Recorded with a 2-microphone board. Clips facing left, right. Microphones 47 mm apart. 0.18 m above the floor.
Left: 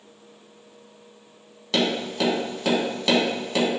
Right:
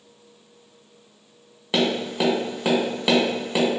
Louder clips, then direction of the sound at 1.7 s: Right 1 dB; 20° right (ahead or behind).